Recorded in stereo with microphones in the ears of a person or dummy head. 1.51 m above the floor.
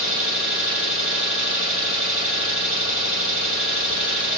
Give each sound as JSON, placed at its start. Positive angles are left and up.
{"t": 0.0, "sound": "an engine running", "side_deg": -65, "distance_m": 1.9}